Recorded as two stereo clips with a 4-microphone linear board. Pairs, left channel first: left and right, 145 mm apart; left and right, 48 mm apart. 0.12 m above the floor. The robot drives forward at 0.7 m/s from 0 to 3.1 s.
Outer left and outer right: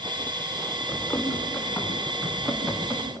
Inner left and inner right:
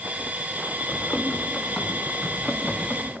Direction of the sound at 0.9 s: 15° left (ahead or behind).